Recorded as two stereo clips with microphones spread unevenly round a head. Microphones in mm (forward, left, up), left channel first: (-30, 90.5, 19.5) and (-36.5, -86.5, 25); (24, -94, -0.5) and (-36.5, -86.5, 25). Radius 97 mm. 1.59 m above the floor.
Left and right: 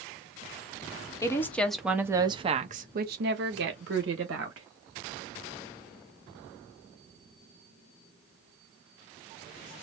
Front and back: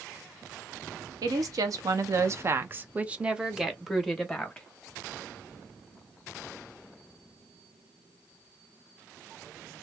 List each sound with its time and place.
1.2 s a woman speaking: 160° left, 1.0 m; by 4.7 s 95° right, 1.5 m